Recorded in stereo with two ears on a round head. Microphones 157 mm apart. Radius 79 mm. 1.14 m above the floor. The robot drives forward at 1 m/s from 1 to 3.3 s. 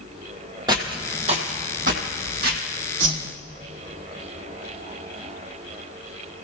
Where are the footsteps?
25° right (ahead or behind), 1.5 m; by 2.6 s 60° right (ahead or behind), 2 m.